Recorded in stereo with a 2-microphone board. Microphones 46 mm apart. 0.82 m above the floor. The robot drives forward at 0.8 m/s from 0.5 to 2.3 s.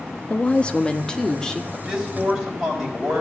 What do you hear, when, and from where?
0.3 s a woman speaking: 30° left (ahead or behind), 0.7 m; by 1.6 s 15° left (ahead or behind), 1.6 m
1.7 s a man speaking: 10° right (ahead or behind), 4 m